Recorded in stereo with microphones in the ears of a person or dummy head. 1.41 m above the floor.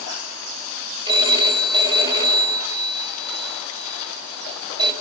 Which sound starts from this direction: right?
A phone ringing, at 1.1 s.